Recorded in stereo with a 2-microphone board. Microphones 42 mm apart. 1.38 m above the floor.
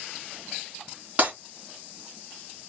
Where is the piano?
No piano in this recording.